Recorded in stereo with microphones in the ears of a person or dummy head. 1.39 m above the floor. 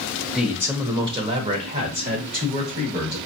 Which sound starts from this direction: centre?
A man speaking, at 0.3 s.